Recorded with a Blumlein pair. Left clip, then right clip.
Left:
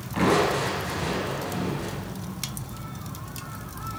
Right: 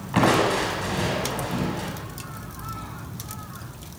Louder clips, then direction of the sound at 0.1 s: Right 2 dB; 65° right.